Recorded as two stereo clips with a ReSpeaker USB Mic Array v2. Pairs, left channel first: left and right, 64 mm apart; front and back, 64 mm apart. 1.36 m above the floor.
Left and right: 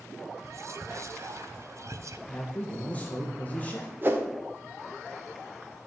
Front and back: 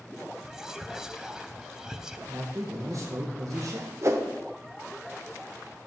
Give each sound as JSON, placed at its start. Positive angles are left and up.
{"t": 0.4, "sound": "whispering", "azimuth_deg": -100, "distance_m": 0.6}
{"t": 2.3, "sound": "a man speaking", "azimuth_deg": 155, "distance_m": 1.1}
{"t": 4.0, "sound": "a whoosh", "azimuth_deg": -145, "distance_m": 1.0}